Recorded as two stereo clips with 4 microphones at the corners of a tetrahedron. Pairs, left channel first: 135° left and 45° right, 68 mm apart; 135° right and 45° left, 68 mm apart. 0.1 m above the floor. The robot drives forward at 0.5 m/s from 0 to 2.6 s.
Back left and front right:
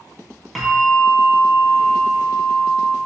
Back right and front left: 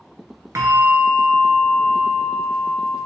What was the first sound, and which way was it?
A bell, 45° left.